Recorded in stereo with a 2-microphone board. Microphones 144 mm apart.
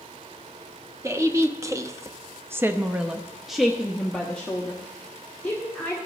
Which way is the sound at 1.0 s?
20° right (ahead or behind).